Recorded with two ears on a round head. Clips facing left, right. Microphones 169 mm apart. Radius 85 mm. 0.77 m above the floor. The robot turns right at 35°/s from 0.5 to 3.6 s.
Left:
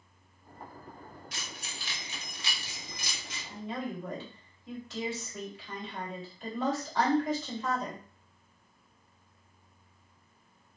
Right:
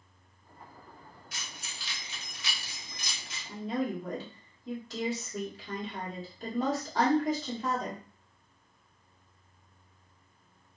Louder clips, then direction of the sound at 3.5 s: Right 5 dB; 30° right (ahead or behind).